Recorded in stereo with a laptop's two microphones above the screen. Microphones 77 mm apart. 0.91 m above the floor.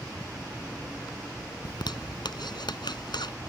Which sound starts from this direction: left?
A zipper, at 1.6 s.